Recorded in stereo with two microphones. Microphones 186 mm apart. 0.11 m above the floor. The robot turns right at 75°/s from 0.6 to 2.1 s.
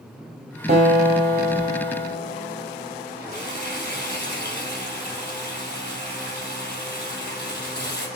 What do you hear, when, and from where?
0.7 s a guitar: 45° right, 3 m; by 3.7 s 60° left, 3 m
3.3 s frying: 60° left (ahead or behind), 4.5 m